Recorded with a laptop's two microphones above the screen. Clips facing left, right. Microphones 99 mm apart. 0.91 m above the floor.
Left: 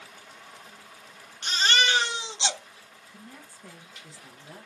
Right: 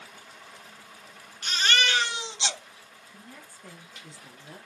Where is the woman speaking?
Centre (ahead or behind), 0.6 m.